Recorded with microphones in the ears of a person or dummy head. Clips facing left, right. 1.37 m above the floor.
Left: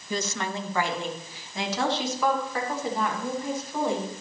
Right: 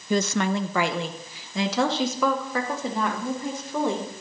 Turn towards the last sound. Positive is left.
turn(degrees=-75)  # may be behind; listen again after turning